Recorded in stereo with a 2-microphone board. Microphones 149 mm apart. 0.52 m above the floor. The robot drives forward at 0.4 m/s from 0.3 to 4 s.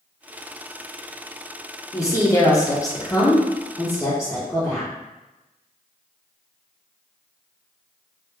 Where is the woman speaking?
20° left (ahead or behind), 0.8 m.